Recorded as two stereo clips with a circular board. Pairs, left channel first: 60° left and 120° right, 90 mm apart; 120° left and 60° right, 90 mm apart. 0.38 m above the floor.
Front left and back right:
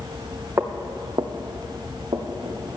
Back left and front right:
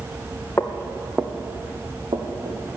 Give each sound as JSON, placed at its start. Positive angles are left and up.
{"t": 0.6, "sound": "footsteps", "azimuth_deg": 180, "distance_m": 1.0}